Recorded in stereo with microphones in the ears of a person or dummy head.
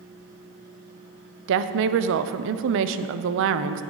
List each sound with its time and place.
1.5 s a woman speaking: 65° right (ahead or behind), 0.5 m